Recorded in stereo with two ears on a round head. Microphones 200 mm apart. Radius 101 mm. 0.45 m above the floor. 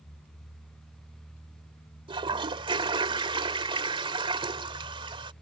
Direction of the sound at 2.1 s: 25° right (ahead or behind).